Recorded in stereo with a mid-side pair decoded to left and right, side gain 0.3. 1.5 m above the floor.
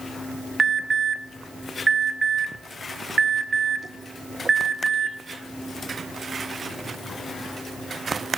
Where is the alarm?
45° right, 1.6 m.